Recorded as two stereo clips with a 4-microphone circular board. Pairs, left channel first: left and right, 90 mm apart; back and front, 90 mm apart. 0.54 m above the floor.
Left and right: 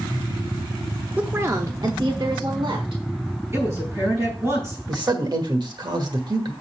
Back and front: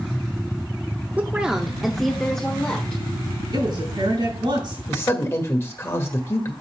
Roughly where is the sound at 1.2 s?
Ahead right.